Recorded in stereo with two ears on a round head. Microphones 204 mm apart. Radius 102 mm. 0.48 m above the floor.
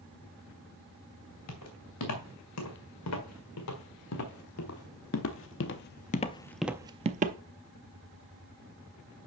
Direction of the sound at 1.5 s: 70° left (ahead or behind).